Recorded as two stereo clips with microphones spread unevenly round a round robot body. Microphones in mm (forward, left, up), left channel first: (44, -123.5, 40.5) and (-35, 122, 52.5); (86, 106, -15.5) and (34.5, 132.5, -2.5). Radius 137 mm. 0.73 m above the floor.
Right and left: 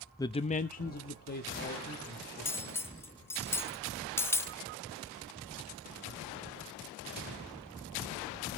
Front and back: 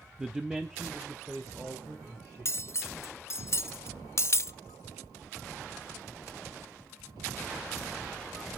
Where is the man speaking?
120° right, 0.5 m; by 2.8 s 125° right, 3 m.